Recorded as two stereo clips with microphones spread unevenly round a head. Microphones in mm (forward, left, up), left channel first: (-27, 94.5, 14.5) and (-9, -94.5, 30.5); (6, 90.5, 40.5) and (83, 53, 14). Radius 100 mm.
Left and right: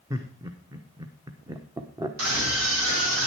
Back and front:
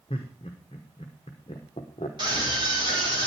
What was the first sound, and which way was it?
Laughter, 155° right.